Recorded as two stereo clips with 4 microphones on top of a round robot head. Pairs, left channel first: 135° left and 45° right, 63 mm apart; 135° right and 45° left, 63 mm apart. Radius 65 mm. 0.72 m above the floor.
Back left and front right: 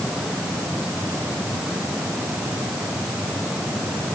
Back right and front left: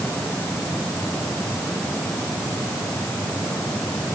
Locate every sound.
Only background noise.